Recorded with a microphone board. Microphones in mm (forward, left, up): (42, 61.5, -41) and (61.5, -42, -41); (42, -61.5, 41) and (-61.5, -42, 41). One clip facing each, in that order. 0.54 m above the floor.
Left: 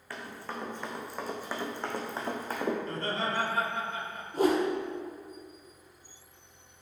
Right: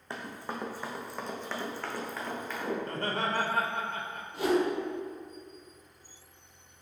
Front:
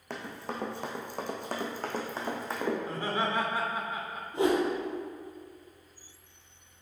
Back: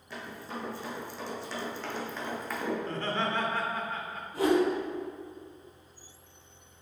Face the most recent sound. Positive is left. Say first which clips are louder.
# left 1 dB, back 1 dB
turn(degrees=55)